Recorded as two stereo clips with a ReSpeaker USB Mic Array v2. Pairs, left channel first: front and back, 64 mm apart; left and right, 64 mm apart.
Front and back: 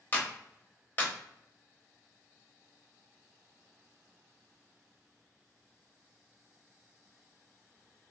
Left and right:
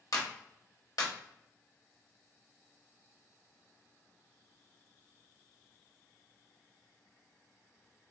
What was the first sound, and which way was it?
A clap, 65° left.